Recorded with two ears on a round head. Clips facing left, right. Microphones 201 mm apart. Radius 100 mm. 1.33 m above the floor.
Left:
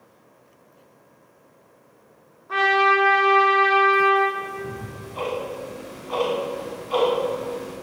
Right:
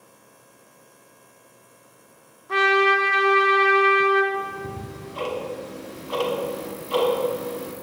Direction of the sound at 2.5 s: 45° right (ahead or behind).